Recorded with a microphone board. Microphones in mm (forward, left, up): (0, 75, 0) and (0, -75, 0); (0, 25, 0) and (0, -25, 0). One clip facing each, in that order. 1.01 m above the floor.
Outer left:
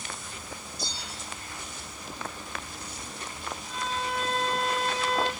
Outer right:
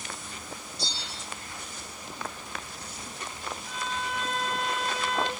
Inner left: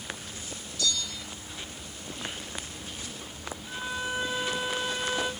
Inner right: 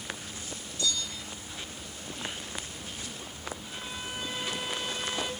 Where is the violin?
25° left (ahead or behind), 1.1 m.